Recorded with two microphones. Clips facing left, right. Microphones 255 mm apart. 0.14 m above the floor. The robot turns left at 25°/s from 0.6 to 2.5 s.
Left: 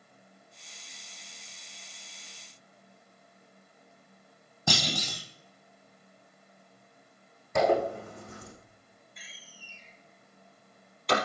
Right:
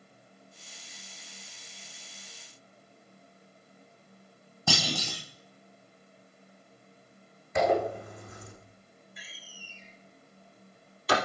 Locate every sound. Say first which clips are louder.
4.7 s a clunk: even; 15° left (ahead or behind), 3 m
7.5 s a zipper: left 1 dB; 45° left (ahead or behind), 6 m
9.2 s a door slam: right 2 dB; 5° right (ahead or behind), 3 m